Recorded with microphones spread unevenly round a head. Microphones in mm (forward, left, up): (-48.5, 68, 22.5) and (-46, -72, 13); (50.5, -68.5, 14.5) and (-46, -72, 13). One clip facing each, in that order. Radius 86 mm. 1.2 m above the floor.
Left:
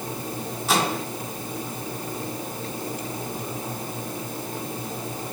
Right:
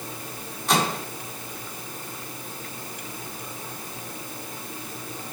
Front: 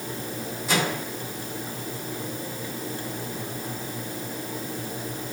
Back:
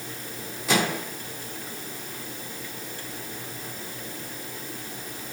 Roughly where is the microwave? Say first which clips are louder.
Even, back 2 dB; behind.